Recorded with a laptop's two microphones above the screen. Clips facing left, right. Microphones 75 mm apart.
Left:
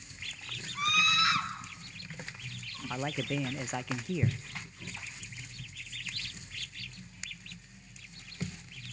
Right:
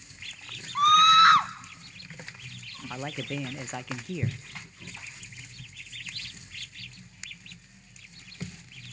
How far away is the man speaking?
About 0.6 m.